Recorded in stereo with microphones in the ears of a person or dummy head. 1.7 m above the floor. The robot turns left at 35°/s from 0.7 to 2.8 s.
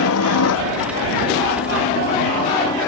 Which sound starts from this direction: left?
A helicopter, at 0.0 s.